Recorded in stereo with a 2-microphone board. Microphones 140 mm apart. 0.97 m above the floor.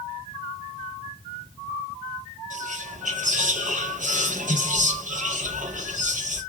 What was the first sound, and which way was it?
Whispering, 75° right (ahead or behind).